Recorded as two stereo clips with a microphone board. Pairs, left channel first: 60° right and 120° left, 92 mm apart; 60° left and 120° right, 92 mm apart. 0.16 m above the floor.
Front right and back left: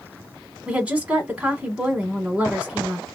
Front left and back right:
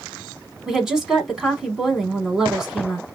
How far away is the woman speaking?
About 1.2 m.